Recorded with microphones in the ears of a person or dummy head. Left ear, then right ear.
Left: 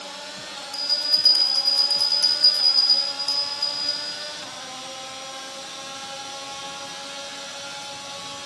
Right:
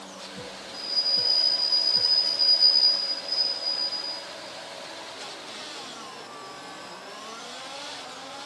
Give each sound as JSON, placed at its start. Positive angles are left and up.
{"t": 0.7, "sound": "a bell", "side_deg": 50, "distance_m": 1.2}